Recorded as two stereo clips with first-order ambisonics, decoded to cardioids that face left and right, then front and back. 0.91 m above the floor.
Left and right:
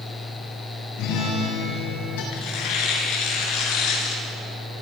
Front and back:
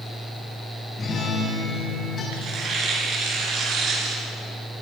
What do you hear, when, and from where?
1.0 s a guitar: 75° left, 8 m
2.3 s tearing paper: 125° left, 5.5 m